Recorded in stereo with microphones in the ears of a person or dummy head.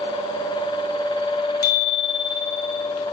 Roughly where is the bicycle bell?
Left.